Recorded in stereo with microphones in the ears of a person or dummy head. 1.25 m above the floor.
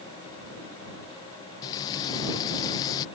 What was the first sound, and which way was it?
Frying, 20° left (ahead or behind).